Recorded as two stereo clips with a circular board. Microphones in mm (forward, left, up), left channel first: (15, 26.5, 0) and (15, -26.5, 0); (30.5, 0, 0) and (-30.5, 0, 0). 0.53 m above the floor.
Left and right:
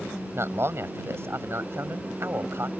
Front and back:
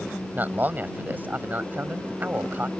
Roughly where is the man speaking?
Behind right.